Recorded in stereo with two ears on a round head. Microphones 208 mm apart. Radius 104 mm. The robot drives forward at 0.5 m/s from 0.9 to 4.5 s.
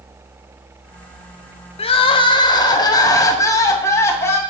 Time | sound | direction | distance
1.8 | crying | 25° left (ahead or behind) | 0.9 m